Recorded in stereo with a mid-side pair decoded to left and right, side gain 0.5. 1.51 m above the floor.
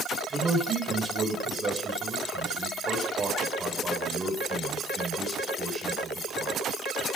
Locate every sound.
0.3 s a man speaking: 25° right, 7 m